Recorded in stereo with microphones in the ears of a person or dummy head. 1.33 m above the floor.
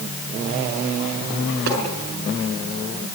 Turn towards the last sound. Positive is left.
turn(degrees=-55)  # may be behind; listen again after turning